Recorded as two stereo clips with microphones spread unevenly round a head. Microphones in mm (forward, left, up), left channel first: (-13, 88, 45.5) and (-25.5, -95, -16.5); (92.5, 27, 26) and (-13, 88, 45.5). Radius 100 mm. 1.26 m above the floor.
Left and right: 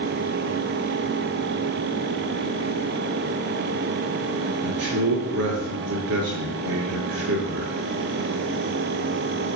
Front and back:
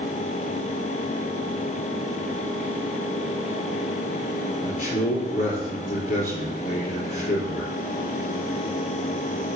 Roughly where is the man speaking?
Right.